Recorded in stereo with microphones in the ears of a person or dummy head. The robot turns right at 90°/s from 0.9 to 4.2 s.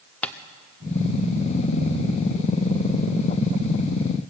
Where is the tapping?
10° left (ahead or behind), 0.6 m.